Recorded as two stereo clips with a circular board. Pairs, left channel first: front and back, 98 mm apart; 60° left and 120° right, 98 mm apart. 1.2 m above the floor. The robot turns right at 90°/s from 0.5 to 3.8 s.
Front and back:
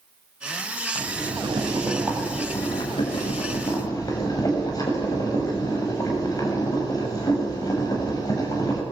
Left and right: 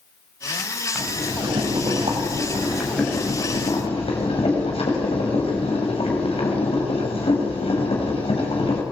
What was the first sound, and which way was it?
Boiling, 155° left.